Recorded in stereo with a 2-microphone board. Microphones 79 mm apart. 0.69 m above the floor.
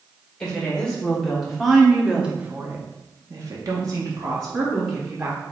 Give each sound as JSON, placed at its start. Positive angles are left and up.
{"t": 0.4, "sound": "a woman speaking", "side_deg": 10, "distance_m": 2.0}